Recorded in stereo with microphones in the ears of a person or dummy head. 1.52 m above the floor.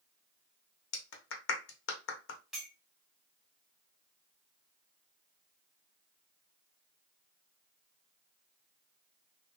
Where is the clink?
Centre (ahead or behind), 1.5 m.